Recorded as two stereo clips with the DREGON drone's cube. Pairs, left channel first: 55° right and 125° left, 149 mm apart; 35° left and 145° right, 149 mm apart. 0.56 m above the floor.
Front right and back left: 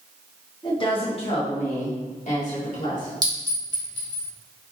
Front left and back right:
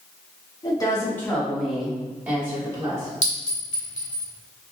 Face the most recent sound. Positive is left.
turn(degrees=65)